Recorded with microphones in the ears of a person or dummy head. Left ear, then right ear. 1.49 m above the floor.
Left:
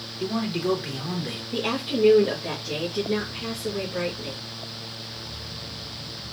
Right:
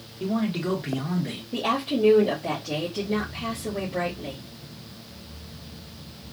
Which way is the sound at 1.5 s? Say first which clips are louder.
Right 2 dB; 25° left (ahead or behind).